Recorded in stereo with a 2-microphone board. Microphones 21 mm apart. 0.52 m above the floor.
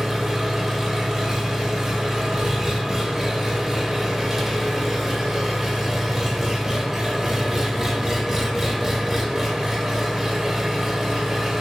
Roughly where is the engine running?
Centre.